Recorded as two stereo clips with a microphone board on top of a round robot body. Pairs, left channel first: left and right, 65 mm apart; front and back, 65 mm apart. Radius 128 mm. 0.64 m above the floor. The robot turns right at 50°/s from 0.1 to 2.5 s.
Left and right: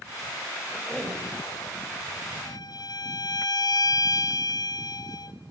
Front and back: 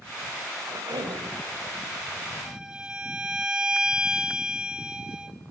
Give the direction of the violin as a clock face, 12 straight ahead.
9 o'clock.